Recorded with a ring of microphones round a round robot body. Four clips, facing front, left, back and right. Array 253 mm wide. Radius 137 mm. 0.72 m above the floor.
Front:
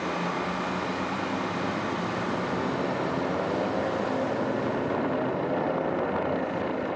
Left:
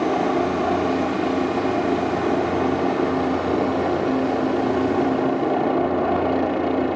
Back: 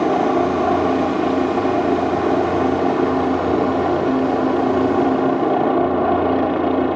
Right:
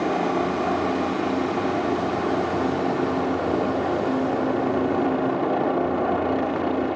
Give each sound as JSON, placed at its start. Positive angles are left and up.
{"t": 0.0, "sound": "a helicopter", "azimuth_deg": 170}